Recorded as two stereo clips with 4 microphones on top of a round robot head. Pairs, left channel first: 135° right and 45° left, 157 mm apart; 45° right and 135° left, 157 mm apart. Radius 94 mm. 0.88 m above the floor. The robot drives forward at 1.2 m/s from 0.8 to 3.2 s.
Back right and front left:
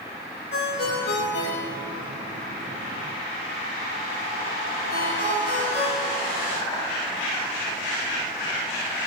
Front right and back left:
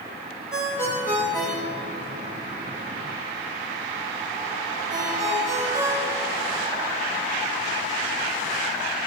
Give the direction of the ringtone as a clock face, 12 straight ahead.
4 o'clock.